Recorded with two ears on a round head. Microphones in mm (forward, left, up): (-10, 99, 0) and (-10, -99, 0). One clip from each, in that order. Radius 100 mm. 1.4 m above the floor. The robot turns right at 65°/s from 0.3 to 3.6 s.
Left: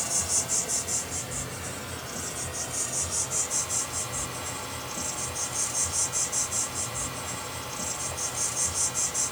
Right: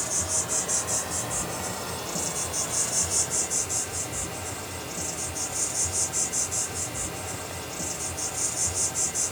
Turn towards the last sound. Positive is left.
turn(degrees=0)